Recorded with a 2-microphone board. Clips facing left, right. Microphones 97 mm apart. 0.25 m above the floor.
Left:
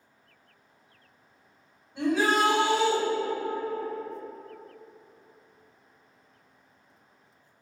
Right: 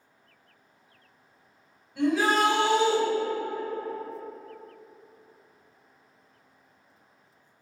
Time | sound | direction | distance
1.9 | a shout | 35° left (ahead or behind) | 1.8 m